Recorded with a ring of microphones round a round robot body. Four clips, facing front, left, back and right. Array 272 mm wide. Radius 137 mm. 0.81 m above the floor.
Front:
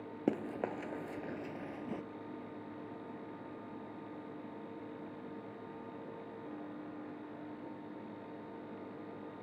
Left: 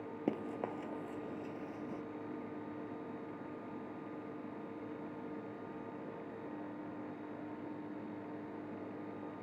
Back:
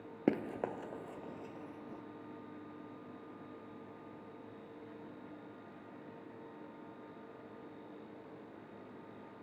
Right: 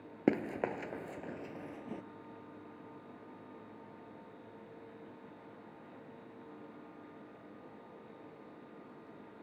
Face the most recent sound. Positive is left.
turn(degrees=-5)